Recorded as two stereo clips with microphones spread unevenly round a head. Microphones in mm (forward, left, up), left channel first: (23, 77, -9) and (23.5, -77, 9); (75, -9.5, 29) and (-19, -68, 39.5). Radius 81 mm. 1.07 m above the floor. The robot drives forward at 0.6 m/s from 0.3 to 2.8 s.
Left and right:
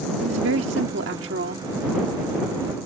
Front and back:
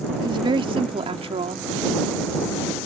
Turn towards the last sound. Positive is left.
turn(degrees=-125)